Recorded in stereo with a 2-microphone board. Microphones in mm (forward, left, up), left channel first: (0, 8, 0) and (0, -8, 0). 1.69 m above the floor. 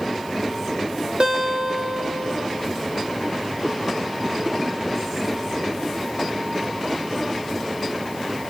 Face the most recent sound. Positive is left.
turn(degrees=-80)